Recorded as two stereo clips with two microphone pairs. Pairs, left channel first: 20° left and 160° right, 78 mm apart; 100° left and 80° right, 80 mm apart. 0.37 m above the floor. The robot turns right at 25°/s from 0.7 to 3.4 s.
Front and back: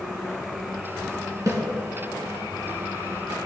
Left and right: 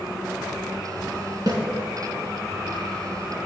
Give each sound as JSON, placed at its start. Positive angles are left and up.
{"t": 1.5, "sound": "a snare drum", "azimuth_deg": -115, "distance_m": 2.5}